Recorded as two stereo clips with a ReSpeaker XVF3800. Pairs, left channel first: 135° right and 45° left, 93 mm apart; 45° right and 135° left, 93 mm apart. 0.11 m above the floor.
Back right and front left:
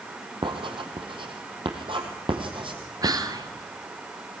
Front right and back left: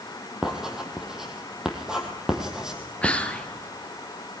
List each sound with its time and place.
0.4 s writing: 50° left, 3 m
3.0 s whispering: 25° left, 2.0 m